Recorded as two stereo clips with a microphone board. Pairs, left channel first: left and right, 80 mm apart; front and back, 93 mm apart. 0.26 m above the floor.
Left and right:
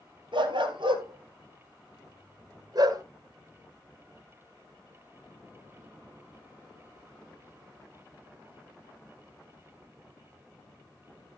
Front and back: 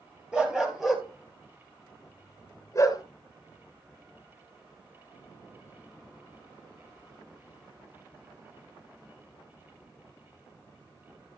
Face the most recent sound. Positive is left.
turn(degrees=-50)